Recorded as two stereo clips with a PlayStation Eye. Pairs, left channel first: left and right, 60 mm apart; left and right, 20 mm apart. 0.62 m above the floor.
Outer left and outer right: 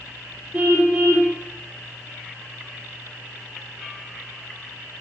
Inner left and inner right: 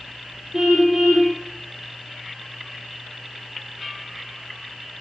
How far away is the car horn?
About 9 m.